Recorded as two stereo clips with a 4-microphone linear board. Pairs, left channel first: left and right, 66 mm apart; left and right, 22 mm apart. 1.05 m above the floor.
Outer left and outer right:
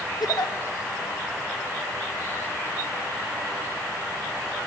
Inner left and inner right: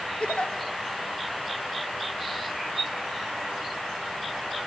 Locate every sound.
0.2 s a giggle: 70° left (ahead or behind), 1.4 m